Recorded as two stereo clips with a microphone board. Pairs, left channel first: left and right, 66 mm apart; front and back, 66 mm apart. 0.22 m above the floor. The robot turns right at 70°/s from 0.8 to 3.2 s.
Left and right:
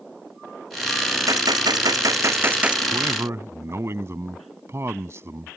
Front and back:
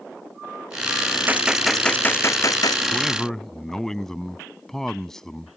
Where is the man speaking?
100° right; by 5.6 s 80° right.